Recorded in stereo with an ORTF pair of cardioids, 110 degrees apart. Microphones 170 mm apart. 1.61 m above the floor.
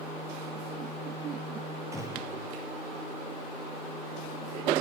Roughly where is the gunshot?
Ahead.